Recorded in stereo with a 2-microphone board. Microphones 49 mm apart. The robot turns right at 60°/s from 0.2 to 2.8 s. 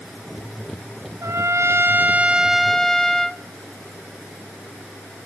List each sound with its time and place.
1.2 s a trumpet: 85° right, 0.5 m; by 3.4 s 10° left, 0.5 m